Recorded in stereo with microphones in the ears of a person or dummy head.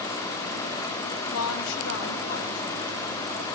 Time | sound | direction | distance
1.3 | a woman speaking | 80° left | 0.7 m